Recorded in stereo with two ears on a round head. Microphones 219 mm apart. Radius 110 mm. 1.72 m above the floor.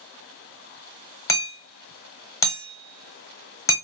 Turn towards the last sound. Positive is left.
turn(degrees=15)  # may be behind; listen again after turning